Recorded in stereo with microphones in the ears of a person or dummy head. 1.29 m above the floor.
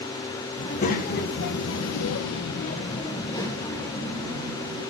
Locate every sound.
0.6 s a child speaking: 40° left (ahead or behind), 1.7 m; by 4.8 s 5° left (ahead or behind), 2.5 m